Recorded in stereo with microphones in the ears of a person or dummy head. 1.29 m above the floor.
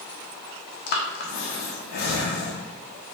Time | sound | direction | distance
0.9 | breathing | 50° left (ahead or behind) | 0.5 m